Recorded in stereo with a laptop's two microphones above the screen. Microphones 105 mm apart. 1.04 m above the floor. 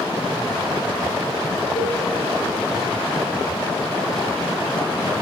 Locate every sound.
1.8 s a cowbell: 70° left (ahead or behind), 1.2 m